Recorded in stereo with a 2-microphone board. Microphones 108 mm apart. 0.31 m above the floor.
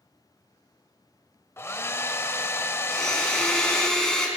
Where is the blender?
5° left (ahead or behind), 3.5 m.